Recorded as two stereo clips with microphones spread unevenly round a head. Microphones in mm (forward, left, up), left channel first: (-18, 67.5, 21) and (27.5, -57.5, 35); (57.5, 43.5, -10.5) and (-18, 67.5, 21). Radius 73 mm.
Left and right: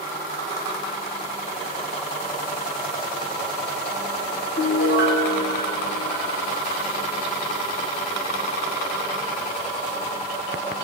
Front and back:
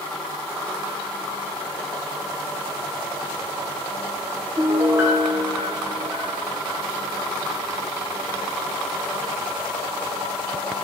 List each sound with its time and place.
4.6 s a piano: 100° left, 2 m